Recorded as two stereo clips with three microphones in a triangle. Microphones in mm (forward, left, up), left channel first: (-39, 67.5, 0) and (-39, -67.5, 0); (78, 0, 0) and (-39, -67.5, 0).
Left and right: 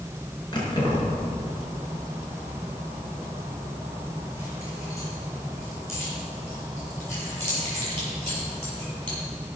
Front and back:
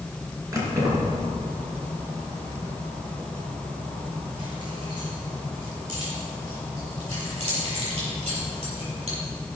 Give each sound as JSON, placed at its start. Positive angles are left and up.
{"t": 0.5, "sound": "keys jangling", "azimuth_deg": 145, "distance_m": 4.5}